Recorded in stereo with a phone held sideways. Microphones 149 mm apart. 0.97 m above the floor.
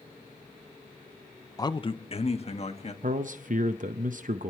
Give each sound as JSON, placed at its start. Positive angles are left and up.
{"t": 1.6, "sound": "a man speaking", "side_deg": 25, "distance_m": 0.6}
{"t": 3.0, "sound": "a man speaking", "side_deg": -60, "distance_m": 0.6}